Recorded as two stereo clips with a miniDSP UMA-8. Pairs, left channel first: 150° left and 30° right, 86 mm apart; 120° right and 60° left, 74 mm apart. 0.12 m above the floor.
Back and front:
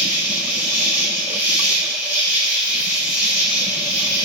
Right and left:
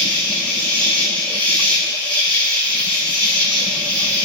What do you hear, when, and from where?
0.0 s an insect: 70° right, 1.0 m